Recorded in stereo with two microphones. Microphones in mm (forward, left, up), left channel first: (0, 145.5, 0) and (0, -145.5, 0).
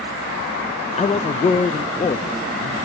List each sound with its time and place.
1.0 s a man speaking: 25° left (ahead or behind), 0.6 m